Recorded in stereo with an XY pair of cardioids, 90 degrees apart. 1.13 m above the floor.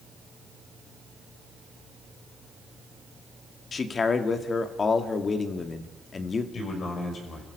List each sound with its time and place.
3.7 s a man speaking: 45° left, 1.9 m
6.5 s a man speaking: 60° left, 6 m